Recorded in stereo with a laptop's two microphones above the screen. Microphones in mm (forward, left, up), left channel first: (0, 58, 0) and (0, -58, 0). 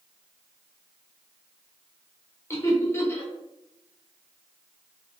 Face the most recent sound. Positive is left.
turn(degrees=25)  # may be behind; listen again after turning